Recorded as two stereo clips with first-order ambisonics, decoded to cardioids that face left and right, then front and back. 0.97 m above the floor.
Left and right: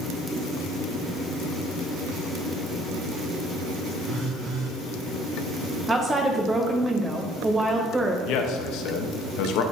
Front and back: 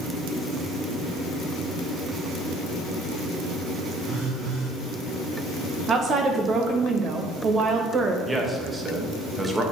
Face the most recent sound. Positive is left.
turn(degrees=105)